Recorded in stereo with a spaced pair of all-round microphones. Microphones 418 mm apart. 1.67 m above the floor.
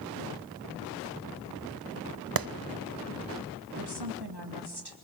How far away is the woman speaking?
About 3 m.